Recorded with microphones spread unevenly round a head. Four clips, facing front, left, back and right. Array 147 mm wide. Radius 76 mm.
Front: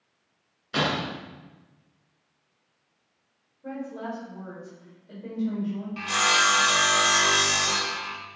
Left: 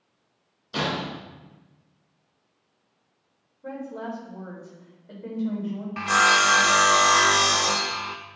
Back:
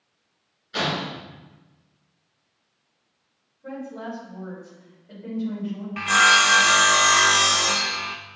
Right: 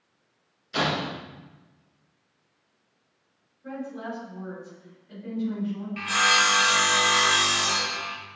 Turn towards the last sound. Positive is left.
turn(degrees=115)